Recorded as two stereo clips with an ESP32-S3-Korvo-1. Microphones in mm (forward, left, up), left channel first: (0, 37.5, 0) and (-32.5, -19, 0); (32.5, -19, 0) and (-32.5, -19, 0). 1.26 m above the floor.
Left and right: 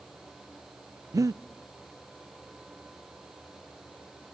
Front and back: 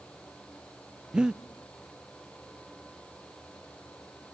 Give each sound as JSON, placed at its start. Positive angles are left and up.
{"t": 1.1, "sound": "breathing", "azimuth_deg": -105, "distance_m": 0.5}